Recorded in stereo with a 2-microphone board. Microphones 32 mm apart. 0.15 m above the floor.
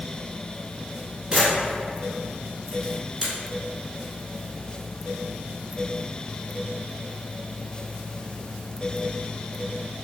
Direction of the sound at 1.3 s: 20° right (ahead or behind).